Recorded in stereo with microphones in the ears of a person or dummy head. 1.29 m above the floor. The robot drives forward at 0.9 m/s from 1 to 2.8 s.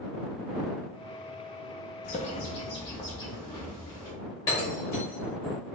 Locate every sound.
2.0 s a bird: 35° left (ahead or behind), 0.7 m; by 4.1 s 20° left (ahead or behind), 1.3 m
4.5 s breaking glass: 20° left (ahead or behind), 2.5 m